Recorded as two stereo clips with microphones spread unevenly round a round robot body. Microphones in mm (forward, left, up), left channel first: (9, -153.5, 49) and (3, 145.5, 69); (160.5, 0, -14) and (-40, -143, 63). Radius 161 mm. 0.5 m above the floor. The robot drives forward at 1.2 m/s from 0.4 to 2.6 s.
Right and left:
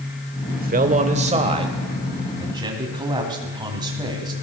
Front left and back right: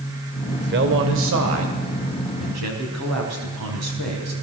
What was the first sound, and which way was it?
A man speaking, 150° left.